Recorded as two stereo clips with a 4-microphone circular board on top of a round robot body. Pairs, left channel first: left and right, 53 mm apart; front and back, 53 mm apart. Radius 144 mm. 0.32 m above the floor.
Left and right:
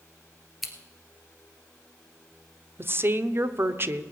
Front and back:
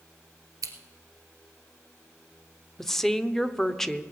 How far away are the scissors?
About 1.5 m.